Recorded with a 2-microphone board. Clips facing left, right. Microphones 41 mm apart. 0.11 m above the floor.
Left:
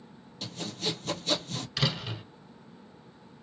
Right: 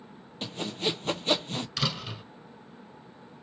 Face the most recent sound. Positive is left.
turn(degrees=5)  # may be behind; listen again after turning